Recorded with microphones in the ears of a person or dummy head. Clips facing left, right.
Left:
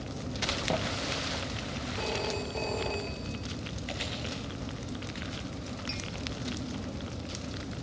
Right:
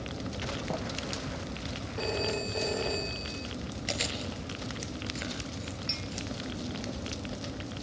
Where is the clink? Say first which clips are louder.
Even; 20° right (ahead or behind), 1.2 m.